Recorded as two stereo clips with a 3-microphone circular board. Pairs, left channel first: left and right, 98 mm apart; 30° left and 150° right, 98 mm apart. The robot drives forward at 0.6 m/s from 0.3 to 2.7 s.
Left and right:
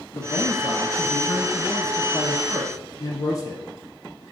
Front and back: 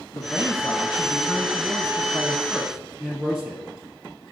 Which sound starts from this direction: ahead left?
A man speaking, at 0.1 s.